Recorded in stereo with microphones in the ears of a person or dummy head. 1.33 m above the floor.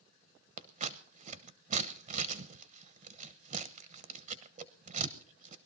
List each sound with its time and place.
0.6 s scissors: 40° right (ahead or behind), 0.9 m